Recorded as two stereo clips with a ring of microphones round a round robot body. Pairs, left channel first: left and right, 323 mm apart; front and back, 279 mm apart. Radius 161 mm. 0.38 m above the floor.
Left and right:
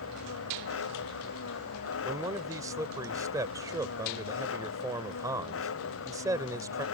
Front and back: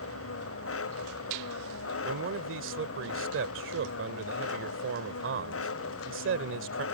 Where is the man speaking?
165° right.